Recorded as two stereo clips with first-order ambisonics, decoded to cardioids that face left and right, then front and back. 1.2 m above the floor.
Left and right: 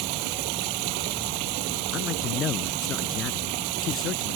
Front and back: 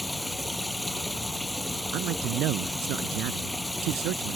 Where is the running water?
85° right.